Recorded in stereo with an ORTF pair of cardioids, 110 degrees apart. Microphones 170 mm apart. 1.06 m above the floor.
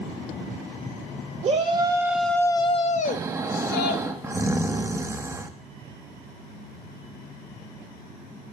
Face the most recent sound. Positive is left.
turn(degrees=-15)